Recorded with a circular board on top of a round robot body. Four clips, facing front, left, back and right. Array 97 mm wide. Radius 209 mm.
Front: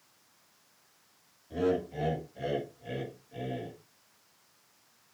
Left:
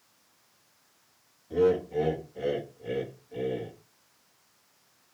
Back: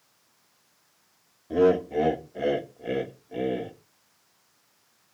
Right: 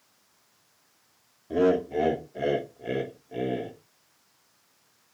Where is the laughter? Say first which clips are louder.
Right 1 dB, back 9 dB; 140° right, 2.5 m.